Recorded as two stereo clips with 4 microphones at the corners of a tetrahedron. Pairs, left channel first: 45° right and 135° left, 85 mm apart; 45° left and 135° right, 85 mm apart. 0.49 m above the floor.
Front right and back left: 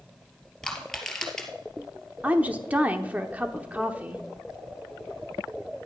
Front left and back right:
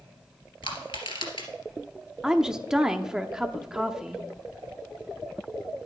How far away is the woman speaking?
About 0.9 m.